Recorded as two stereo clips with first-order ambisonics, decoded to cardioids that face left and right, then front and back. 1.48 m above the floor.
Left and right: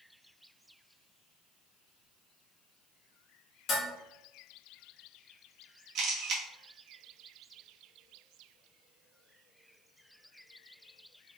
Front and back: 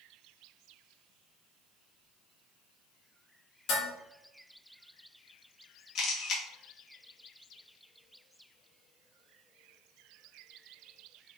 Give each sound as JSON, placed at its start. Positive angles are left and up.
{"t": 3.7, "sound": "dishes clattering", "azimuth_deg": 30, "distance_m": 1.4}
{"t": 6.0, "sound": "a camera shutter", "azimuth_deg": -45, "distance_m": 0.9}